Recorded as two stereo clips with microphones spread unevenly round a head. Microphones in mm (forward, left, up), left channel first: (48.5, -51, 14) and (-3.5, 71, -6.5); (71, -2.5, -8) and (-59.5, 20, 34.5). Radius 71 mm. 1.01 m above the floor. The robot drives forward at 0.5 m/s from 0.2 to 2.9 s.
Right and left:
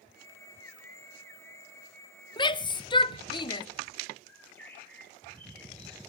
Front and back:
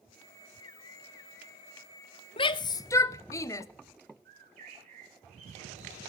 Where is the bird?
145° right, 3 m.